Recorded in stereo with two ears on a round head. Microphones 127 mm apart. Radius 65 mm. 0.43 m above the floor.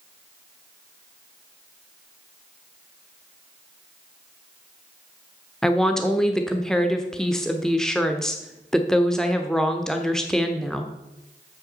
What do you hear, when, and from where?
5.6 s a woman speaking: 5° left (ahead or behind), 0.9 m